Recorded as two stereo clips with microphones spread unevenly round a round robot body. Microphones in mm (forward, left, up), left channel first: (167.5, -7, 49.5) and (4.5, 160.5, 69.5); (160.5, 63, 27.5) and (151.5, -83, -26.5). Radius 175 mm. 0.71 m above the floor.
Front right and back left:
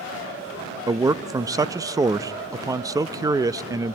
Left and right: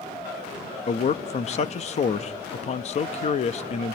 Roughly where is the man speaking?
Ahead left.